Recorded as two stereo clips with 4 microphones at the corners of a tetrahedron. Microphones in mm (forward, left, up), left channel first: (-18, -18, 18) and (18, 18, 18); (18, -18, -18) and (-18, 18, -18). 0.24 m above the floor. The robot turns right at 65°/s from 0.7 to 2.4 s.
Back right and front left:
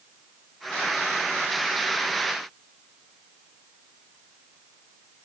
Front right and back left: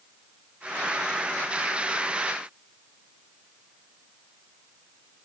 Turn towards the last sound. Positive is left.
No sound to turn to.